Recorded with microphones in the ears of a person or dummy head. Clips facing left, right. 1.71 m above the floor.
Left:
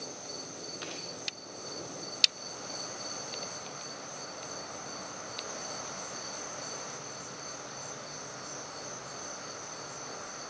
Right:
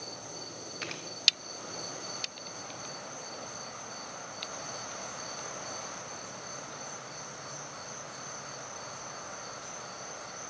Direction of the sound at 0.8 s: 35° right (ahead or behind).